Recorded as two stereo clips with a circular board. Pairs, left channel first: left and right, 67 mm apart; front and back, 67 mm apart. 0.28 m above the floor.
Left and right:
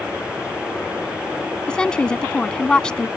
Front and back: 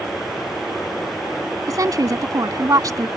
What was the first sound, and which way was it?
A woman speaking, 165° left.